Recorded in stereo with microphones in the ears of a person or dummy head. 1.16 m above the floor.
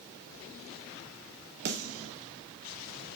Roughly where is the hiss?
I don't hear a hiss.